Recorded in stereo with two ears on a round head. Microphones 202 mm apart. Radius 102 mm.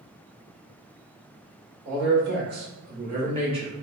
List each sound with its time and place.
1.9 s a man speaking: 55° right (ahead or behind), 1.5 m; by 3.7 s 20° right (ahead or behind), 1.2 m